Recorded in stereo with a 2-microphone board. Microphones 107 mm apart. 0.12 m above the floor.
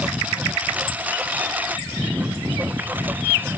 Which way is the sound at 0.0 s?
15° right (ahead or behind).